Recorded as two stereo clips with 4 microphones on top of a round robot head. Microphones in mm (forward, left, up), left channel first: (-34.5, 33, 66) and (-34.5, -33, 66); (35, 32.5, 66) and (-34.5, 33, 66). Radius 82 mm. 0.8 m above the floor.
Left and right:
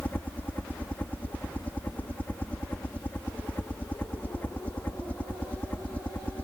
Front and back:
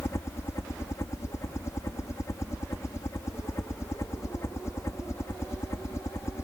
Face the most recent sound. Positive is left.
turn(degrees=30)